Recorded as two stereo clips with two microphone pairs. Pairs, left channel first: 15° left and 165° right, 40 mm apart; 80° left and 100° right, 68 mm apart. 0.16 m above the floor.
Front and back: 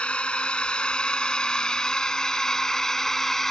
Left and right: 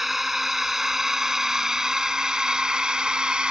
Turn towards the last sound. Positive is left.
turn(degrees=-45)